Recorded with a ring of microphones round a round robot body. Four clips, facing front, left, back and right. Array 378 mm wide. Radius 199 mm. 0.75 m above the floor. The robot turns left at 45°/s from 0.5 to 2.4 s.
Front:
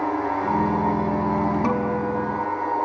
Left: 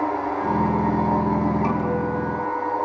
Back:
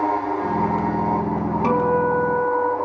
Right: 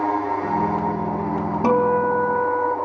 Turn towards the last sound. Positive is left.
turn(degrees=-115)